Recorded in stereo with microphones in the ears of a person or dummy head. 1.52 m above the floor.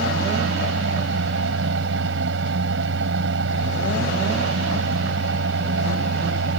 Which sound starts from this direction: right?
A fan, at 0.0 s.